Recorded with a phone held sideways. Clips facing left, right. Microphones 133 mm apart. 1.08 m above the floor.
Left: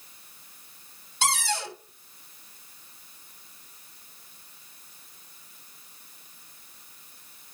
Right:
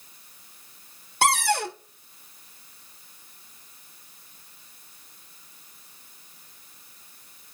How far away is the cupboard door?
About 1.2 m.